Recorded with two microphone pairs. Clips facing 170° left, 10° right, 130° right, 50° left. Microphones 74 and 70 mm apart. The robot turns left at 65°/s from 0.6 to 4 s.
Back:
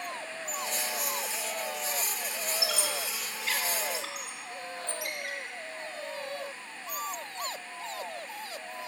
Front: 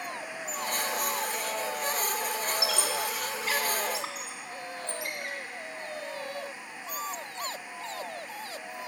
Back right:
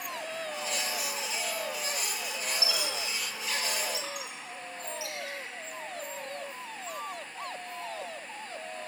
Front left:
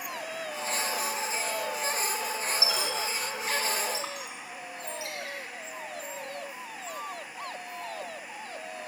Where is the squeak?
110° left, 1.0 m; by 5.4 s 15° left, 1.0 m.